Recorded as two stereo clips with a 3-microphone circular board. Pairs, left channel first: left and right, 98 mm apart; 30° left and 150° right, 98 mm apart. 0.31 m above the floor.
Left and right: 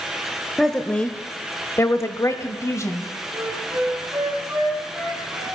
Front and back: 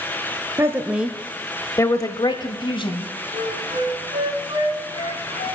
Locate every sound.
0.6 s a woman speaking: 175° left, 1.0 m; by 3.1 s 35° left, 1.8 m
3.3 s a flute: 165° right, 3 m